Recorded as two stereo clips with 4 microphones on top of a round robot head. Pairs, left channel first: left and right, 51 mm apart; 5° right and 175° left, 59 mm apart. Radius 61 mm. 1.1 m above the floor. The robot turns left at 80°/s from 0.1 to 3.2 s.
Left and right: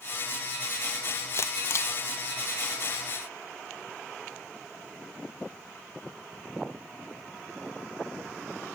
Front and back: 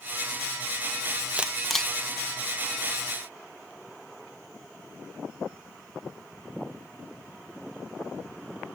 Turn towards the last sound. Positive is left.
turn(degrees=-35)